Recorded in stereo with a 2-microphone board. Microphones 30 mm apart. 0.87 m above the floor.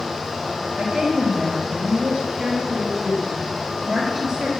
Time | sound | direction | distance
0.8 | a woman speaking | 25° right (ahead or behind) | 5 m